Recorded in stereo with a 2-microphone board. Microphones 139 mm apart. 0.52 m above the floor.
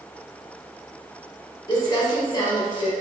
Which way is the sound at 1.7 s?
30° left (ahead or behind).